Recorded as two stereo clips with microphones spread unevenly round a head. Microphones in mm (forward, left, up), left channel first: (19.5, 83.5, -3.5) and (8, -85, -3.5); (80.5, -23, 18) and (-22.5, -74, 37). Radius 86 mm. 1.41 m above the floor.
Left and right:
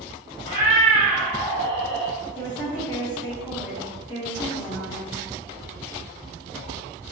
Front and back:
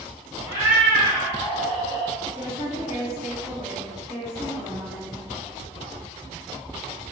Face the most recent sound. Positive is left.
turn(degrees=150)